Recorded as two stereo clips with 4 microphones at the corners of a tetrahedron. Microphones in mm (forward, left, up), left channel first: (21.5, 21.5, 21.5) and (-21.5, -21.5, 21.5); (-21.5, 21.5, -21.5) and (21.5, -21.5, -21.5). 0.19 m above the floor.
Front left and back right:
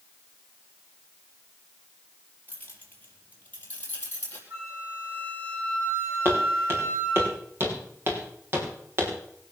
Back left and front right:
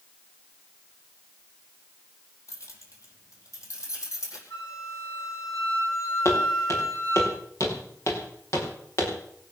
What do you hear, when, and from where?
2.5 s keys jangling: 105° left, 4 m
4.5 s a flute: 175° left, 9 m
6.2 s footsteps: 170° left, 8 m; by 9.1 s 175° left, 6.5 m